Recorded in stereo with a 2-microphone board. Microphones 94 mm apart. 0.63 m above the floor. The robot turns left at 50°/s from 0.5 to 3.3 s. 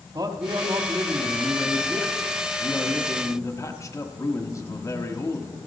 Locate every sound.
0.1 s a man speaking: 90° right, 1.4 m; by 5.6 s 130° left, 1.4 m